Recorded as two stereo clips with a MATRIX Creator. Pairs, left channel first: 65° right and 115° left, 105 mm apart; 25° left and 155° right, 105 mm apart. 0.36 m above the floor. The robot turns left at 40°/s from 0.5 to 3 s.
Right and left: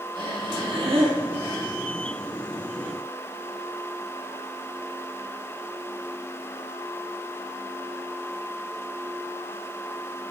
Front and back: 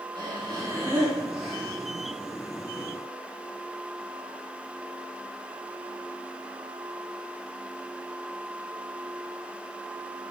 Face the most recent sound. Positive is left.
turn(degrees=55)